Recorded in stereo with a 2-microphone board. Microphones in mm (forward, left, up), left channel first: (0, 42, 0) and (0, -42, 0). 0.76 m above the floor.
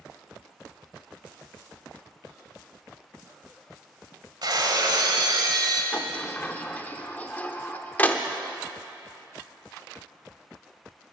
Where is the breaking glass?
55° right (ahead or behind), 1.4 m.